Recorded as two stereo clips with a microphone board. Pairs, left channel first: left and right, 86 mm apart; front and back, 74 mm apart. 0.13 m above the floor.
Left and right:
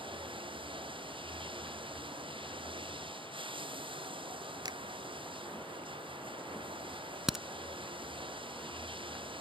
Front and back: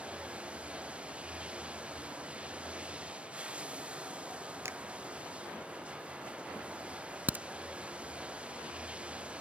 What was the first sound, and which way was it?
Running water, 105° right.